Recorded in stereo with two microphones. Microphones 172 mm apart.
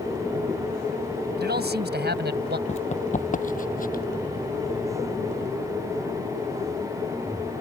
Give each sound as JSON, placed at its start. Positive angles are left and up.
{"t": 1.4, "sound": "a man speaking", "side_deg": -70}
{"t": 2.7, "sound": "running footsteps", "side_deg": 40}